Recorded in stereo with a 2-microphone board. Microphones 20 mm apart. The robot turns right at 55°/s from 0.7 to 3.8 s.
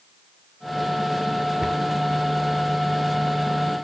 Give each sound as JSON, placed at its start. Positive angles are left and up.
{"t": 1.6, "sound": "a cupboard door", "side_deg": -30, "distance_m": 0.9}